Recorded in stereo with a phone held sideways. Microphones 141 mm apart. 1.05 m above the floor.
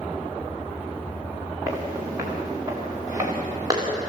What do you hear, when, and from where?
1.7 s footsteps: 20° right (ahead or behind), 8 m; by 4.1 s 25° right (ahead or behind), 6.5 m